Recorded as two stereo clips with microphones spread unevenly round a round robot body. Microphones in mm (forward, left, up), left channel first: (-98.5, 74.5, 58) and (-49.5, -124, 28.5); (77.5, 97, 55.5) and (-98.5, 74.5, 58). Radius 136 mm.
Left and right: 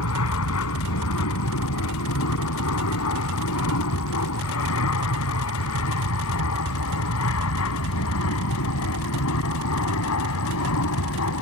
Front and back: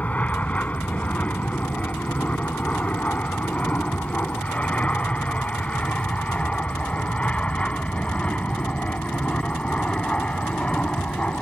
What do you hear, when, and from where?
0.0 s an aircraft: 90° left